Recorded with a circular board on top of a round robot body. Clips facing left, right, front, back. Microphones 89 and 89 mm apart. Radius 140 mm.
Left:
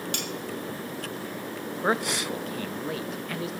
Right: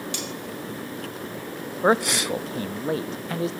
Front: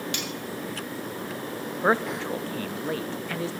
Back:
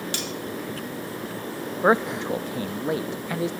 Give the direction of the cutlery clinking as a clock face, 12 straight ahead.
8 o'clock.